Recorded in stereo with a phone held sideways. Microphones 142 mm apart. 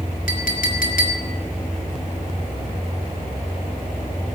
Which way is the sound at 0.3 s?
80° left.